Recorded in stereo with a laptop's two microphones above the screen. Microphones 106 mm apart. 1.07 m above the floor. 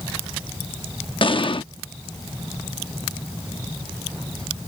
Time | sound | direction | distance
1.2 | an explosion | 55° left (ahead or behind) | ?